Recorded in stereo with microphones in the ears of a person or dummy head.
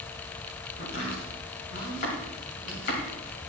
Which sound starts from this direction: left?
Chopping, at 0.8 s.